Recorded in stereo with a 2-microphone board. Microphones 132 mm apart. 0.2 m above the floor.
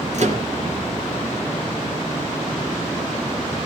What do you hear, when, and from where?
0.1 s a microwave: 60° right (ahead or behind), 3.5 m